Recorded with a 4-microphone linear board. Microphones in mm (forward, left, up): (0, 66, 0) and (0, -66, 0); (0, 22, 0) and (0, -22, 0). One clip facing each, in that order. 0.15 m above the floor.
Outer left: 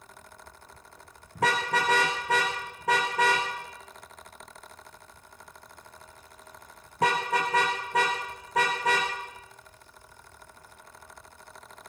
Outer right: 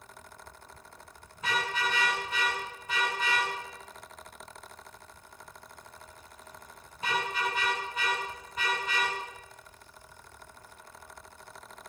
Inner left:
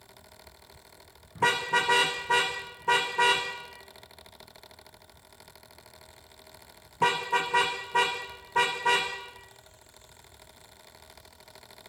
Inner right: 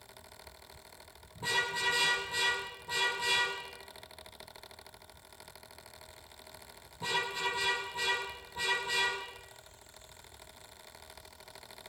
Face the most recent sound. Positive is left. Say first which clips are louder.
# outer left 6 dB, inner left 8 dB
turn(degrees=85)